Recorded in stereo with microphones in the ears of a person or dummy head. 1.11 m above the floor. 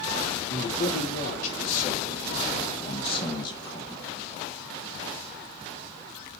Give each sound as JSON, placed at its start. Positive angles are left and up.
{"t": 0.5, "sound": "a man speaking", "side_deg": 50, "distance_m": 3.0}